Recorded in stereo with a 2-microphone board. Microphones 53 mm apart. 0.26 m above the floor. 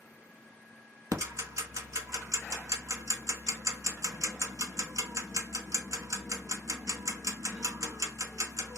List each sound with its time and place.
1.1 s ticking: 75° right (ahead or behind), 0.7 m